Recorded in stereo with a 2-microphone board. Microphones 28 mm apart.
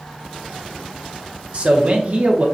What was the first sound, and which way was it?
A man speaking, 45° right (ahead or behind).